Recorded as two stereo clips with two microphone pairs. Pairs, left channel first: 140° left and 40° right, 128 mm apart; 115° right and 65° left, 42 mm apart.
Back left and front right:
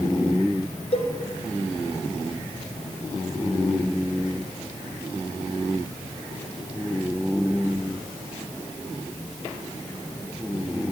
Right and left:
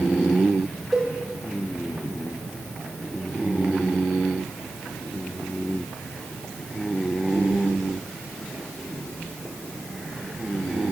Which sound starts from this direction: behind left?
A cowbell, at 0.9 s.